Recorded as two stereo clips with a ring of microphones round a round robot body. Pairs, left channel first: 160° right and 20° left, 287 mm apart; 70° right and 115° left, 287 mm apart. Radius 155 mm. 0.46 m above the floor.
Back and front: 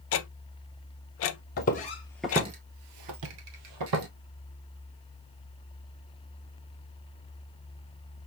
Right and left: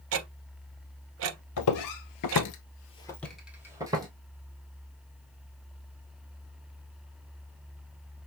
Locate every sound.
0.1 s ticking: 160° left, 0.5 m
1.6 s footsteps: 100° right, 1.0 m; by 4.1 s 35° left, 1.5 m